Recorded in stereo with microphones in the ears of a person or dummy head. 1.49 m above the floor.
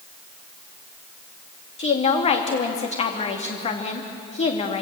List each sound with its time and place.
1.8 s a woman speaking: 40° left (ahead or behind), 2.5 m